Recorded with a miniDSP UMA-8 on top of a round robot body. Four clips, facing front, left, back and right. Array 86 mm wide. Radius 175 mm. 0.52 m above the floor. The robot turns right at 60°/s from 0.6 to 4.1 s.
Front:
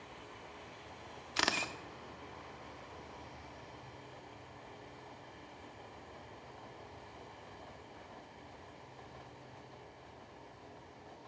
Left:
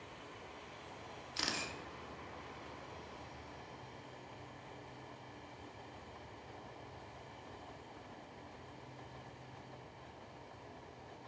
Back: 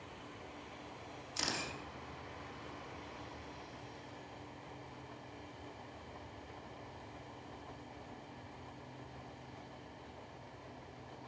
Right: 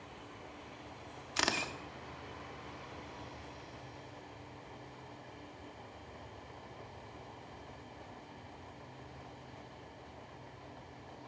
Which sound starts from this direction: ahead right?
A camera shutter, at 1.4 s.